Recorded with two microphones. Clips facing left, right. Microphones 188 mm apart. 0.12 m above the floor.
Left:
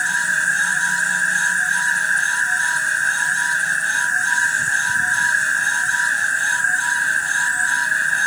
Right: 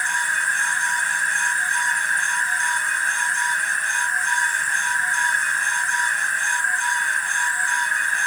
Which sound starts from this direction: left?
An insect, at 0.0 s.